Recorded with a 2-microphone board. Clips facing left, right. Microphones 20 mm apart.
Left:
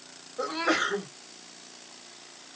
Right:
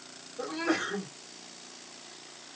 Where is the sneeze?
50° left (ahead or behind), 0.9 m.